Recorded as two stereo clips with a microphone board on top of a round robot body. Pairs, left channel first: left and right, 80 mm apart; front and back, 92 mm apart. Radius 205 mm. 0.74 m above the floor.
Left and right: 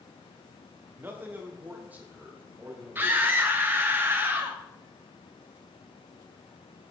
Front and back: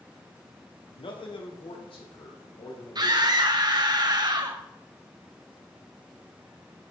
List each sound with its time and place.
1.0 s a man speaking: 25° right, 2.5 m; by 3.2 s 20° right, 5 m
3.0 s a scream: 150° right, 1.7 m